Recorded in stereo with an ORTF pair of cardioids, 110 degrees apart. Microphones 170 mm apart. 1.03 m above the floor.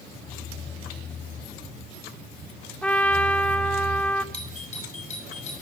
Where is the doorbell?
40° left, 9.5 m.